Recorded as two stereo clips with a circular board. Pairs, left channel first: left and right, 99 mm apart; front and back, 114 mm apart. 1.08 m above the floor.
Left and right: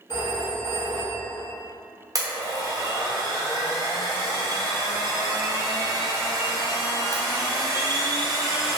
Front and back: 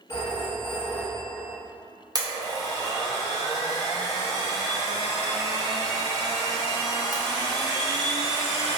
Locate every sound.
0.1 s a phone ringing: 55° left, 1.2 m
2.1 s a blender: 135° right, 0.5 m